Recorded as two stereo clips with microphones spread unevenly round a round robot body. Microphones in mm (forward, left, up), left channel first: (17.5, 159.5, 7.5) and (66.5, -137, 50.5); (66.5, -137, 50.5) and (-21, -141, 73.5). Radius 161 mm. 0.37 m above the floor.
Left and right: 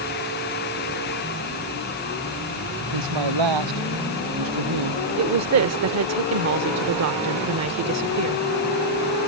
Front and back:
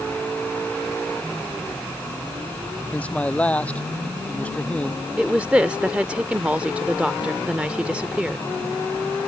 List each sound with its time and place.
2.9 s a man speaking: 70° right
5.2 s a woman speaking: 85° right